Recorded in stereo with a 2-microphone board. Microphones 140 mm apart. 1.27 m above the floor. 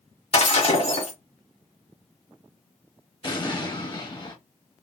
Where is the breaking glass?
50° left (ahead or behind), 1.5 m.